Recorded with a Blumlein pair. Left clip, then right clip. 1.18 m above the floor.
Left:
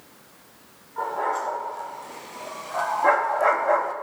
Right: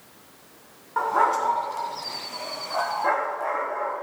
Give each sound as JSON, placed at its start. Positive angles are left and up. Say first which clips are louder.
{"t": 1.0, "sound": "a dog barking", "louder": "right 5 dB", "azimuth_deg": -35, "distance_m": 3.0}